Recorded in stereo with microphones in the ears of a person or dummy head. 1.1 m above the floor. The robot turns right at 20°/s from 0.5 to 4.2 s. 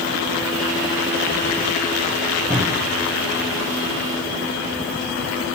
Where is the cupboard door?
20° right (ahead or behind), 1.2 m; by 3.0 s 10° right (ahead or behind), 1.2 m.